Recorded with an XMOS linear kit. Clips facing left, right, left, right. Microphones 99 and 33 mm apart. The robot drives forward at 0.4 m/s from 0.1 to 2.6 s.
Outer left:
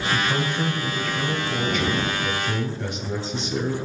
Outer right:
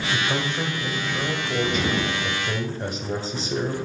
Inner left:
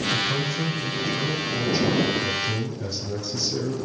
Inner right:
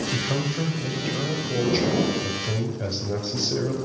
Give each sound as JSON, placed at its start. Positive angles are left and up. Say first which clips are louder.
{"t": 0.1, "sound": "a man speaking", "louder": "outer left 1 dB, inner left 2 dB", "side_deg": -25, "distance_m": 2.0}